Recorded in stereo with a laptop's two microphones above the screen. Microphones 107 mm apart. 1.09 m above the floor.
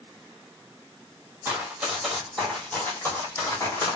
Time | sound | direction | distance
1.4 | running footsteps | 20° right (ahead or behind) | 1.5 m